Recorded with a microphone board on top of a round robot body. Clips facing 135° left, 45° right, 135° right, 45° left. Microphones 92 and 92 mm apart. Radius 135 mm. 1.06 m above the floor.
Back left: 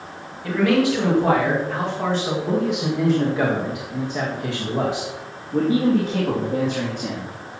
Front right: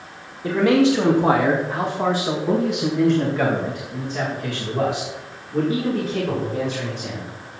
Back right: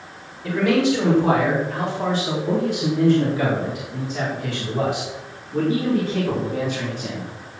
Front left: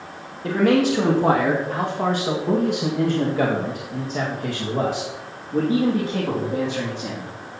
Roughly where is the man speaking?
Ahead.